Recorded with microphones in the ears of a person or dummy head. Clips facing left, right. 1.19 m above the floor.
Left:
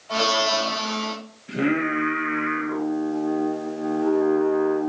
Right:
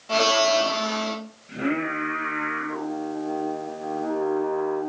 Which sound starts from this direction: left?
Singing, at 1.5 s.